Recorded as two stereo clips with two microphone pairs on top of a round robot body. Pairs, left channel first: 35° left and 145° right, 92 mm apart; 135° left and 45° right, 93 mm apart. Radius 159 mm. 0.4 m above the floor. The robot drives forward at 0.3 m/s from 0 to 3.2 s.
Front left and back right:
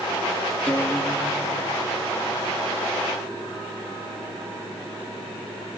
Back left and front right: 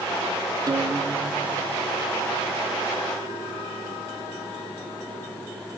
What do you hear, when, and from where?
0.7 s a guitar: 20° right, 1.8 m; by 2.7 s 30° right, 1.5 m